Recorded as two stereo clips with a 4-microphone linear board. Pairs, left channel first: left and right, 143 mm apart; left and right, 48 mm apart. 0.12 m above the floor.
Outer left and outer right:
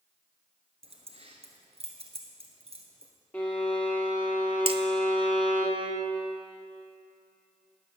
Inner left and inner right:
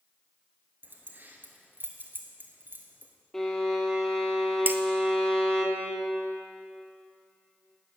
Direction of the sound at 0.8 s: 50° right (ahead or behind).